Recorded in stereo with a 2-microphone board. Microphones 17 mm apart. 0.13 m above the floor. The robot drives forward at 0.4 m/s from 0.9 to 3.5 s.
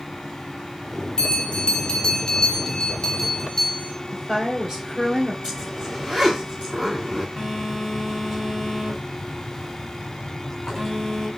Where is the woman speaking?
40° right (ahead or behind), 1.7 m.